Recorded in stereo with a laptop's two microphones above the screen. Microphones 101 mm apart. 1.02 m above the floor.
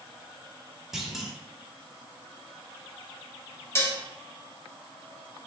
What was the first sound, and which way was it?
A clunk, 5° right (ahead or behind).